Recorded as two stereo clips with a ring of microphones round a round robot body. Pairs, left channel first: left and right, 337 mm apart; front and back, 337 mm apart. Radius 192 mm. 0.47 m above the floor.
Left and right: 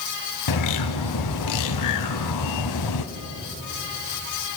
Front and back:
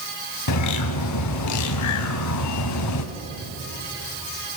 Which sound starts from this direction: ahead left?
A bird, at 0.5 s.